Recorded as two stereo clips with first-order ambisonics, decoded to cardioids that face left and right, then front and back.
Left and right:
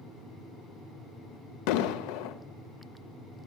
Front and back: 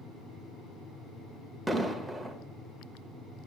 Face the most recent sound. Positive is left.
turn(degrees=90)